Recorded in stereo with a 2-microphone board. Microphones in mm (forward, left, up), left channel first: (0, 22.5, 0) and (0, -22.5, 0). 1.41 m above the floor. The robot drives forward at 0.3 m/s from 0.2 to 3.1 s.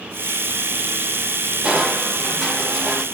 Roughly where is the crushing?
Right.